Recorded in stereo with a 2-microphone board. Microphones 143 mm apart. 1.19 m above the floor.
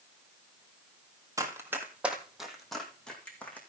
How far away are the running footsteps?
About 1.5 m.